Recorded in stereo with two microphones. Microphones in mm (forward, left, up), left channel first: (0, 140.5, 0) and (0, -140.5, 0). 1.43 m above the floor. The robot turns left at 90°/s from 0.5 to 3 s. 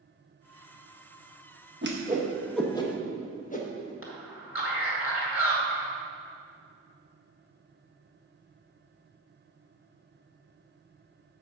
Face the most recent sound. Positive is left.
turn(degrees=50)  # may be behind; listen again after turning